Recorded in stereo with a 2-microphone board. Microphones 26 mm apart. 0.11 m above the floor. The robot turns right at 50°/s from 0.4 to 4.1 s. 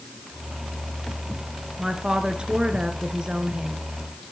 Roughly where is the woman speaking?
Behind right.